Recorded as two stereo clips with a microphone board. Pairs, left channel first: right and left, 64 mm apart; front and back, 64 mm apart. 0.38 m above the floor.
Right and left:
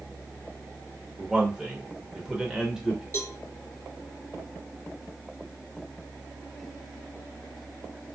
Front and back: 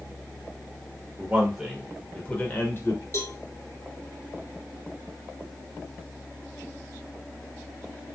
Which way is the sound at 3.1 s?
45° right.